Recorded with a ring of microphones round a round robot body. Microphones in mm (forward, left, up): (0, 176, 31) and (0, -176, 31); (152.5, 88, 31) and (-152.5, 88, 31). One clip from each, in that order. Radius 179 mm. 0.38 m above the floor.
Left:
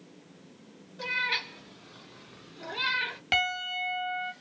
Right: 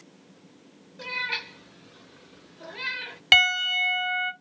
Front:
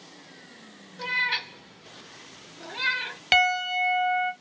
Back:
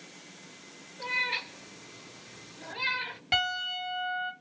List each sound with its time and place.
1.0 s a cat meowing: 5° left, 1.8 m; by 3.2 s 45° left, 2.5 m
3.3 s a piano: 40° right, 1.1 m